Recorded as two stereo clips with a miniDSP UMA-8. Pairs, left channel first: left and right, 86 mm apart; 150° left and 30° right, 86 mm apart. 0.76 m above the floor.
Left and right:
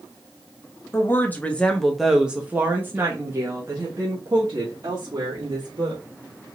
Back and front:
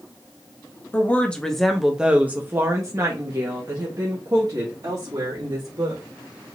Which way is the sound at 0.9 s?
105° left.